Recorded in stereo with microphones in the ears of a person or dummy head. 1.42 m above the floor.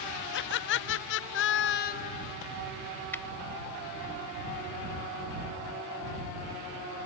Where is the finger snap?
5° left (ahead or behind).